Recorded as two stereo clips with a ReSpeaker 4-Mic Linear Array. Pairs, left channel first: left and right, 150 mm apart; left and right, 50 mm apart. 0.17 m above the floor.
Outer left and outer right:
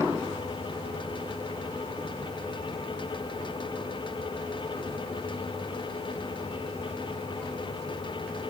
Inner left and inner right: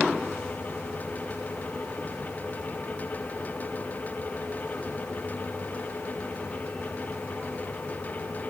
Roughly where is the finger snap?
I don't hear a finger snap.